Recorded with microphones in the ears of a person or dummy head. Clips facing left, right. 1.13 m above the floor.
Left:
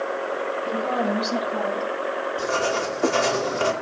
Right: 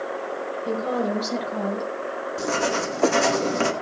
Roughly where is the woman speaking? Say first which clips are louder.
Right 1 dB; right.